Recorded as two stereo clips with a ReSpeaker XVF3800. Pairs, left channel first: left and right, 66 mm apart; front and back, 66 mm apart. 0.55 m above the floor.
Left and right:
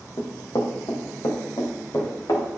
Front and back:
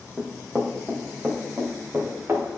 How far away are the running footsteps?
About 1.6 m.